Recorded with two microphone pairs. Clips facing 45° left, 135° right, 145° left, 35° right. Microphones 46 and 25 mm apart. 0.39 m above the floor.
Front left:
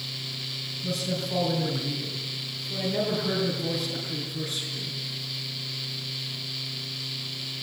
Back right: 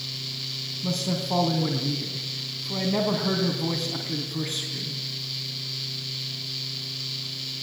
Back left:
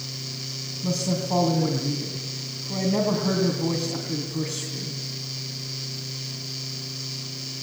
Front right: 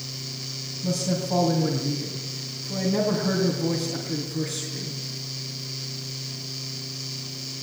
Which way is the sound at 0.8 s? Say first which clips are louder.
Back right 2 dB, even; 160° right.